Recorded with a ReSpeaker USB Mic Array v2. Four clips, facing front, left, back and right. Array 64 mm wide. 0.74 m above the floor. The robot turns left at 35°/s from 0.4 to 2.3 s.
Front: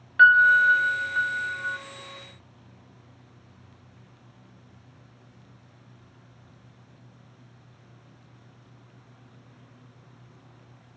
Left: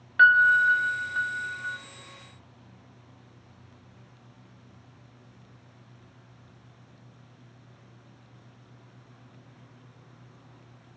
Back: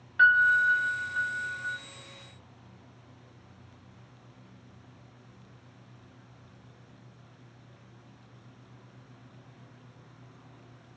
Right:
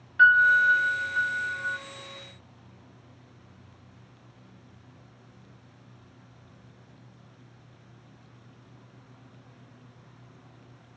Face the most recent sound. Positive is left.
turn(degrees=-15)